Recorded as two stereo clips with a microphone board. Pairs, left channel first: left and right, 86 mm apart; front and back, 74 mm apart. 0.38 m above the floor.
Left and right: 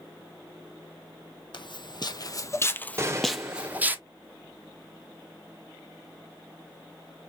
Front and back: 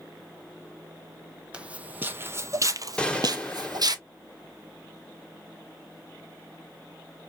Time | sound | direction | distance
1.5 | footsteps | 105° left | 0.9 m
3.0 | a gunshot | 65° right | 1.1 m